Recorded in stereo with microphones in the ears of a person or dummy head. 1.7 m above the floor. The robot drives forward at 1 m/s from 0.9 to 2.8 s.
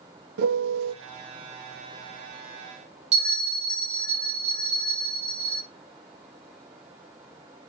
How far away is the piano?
About 1.0 m.